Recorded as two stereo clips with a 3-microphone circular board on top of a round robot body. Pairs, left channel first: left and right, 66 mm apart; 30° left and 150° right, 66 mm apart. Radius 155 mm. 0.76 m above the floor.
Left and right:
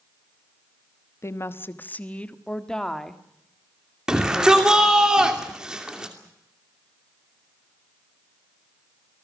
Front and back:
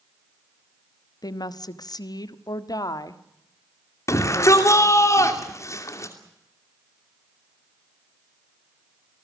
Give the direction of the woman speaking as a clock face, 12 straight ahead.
11 o'clock.